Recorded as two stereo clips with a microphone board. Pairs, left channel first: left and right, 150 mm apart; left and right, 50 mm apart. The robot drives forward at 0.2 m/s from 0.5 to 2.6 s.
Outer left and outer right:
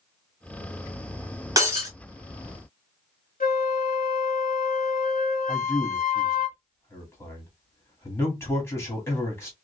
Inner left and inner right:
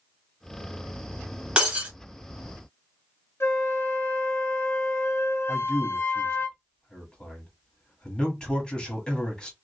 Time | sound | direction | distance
1.6 | breaking glass | 20° right (ahead or behind) | 1.1 m
3.4 | a flute | 70° left (ahead or behind) | 0.7 m
5.5 | a man speaking | 15° left (ahead or behind) | 1.8 m